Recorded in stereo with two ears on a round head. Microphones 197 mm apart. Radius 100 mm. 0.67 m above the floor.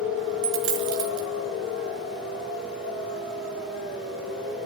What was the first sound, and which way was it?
A dropped coin, 80° right.